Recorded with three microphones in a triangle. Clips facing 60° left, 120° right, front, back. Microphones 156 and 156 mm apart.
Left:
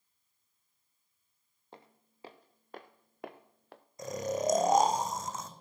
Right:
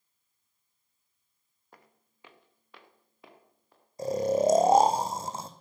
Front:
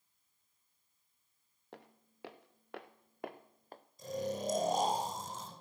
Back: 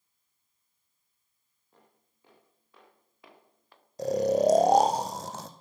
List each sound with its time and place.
1.7 s footsteps: 5° right, 1.6 m; by 3.8 s 50° left, 1.1 m
4.0 s snoring: 175° right, 1.2 m